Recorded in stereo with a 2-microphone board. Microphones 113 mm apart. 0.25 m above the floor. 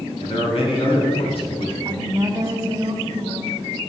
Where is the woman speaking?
30° right (ahead or behind), 1.3 m.